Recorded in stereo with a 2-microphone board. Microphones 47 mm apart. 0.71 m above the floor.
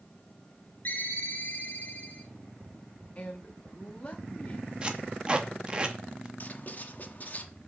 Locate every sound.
0.8 s a ringtone: 40° left (ahead or behind), 1.8 m
3.1 s a man speaking: 35° left (ahead or behind), 1.0 m
4.8 s tape being pulled: 20° right (ahead or behind), 0.9 m
6.4 s writing: 40° left (ahead or behind), 0.8 m